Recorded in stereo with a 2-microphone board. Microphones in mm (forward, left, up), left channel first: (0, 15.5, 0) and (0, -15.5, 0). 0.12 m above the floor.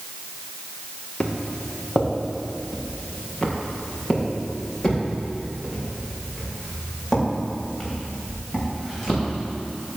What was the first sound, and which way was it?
Footsteps, 25° left (ahead or behind).